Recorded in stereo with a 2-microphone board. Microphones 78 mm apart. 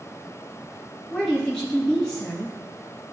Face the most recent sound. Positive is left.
turn(degrees=10)  # may be behind; listen again after turning